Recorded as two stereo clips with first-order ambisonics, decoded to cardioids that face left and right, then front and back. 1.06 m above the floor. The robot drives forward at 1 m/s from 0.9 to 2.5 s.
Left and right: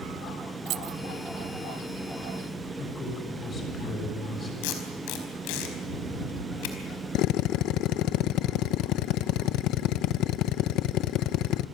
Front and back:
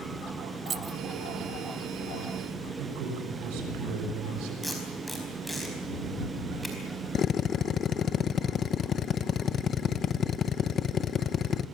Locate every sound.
0.7 s keys jangling: 120° right, 0.6 m; by 1.0 s 125° right, 0.7 m
2.8 s a man speaking: 160° left, 6 m
4.6 s tape being pulled: 90° left, 4.5 m
7.2 s a drill: 60° left, 0.7 m